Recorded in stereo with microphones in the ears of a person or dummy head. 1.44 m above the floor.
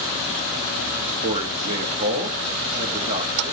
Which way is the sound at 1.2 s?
35° right (ahead or behind).